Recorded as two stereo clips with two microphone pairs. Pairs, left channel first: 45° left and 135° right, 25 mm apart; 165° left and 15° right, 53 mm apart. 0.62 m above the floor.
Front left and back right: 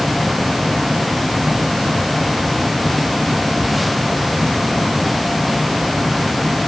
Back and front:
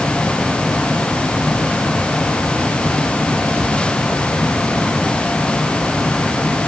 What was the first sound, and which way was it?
Only background noise.